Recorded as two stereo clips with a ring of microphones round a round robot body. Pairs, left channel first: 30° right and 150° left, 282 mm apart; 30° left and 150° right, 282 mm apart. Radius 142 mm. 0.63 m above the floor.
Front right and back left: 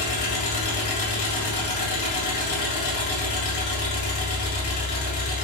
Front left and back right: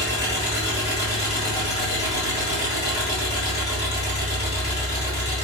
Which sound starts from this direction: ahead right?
An engine running, at 0.0 s.